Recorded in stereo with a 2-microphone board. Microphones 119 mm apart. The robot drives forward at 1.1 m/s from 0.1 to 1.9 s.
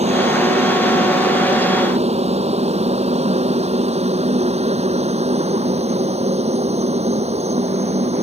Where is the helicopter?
65° right (ahead or behind).